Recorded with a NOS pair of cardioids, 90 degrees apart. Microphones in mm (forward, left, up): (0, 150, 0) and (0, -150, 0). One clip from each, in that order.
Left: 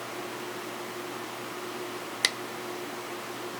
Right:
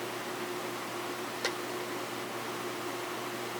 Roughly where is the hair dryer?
No hair dryer in this recording.